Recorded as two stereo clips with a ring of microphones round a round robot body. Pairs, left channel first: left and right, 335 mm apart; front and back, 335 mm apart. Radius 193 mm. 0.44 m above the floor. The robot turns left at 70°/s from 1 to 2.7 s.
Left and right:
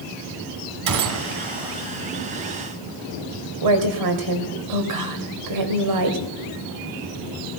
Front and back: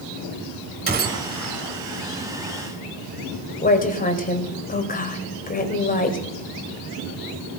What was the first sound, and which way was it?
A gunshot, 115° right.